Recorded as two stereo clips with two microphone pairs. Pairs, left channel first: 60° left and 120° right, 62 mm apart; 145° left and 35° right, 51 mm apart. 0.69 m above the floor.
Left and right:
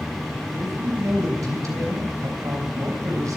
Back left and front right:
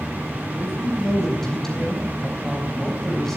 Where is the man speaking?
135° right, 3.5 m.